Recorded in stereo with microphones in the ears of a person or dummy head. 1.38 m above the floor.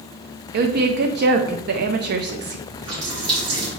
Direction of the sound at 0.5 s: 45° right (ahead or behind).